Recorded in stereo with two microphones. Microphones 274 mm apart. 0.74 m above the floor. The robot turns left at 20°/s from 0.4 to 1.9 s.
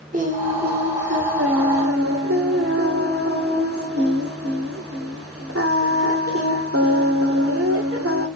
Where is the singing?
30° right, 2 m; by 8.3 s 60° right, 2 m.